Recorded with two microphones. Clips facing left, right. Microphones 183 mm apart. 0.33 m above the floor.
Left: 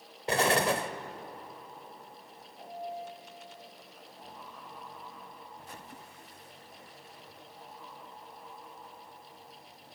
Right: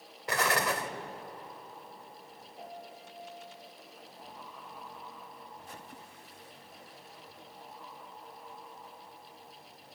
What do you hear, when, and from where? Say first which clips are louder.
0.3 s an explosion: left 4 dB; 30° left (ahead or behind), 1.1 m
2.6 s a piano: left 7 dB; 40° right (ahead or behind), 8.5 m